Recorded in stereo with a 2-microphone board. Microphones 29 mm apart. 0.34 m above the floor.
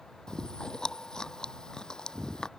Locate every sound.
0.3 s chewing: 30° left (ahead or behind)